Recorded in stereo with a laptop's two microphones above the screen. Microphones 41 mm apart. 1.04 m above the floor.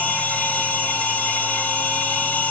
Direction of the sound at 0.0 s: 40° left (ahead or behind).